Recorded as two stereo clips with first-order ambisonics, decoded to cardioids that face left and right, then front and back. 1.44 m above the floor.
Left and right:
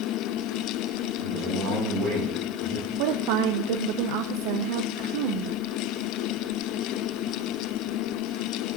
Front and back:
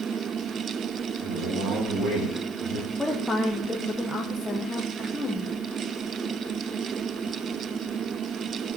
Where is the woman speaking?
85° right, 1.0 m.